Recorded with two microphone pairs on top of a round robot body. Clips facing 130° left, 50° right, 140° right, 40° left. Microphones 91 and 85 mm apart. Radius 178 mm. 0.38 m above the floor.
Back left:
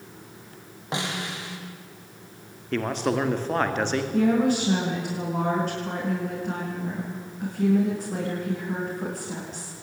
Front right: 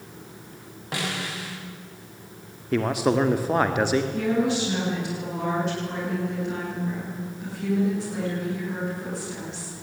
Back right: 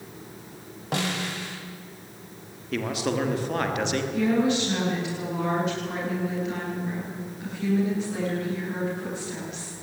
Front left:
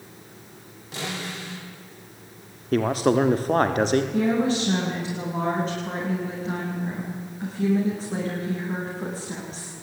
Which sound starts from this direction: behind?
A snare drum, at 0.9 s.